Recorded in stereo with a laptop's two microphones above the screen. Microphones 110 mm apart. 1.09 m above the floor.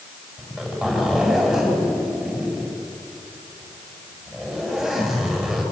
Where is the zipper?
Centre (ahead or behind), 9 m.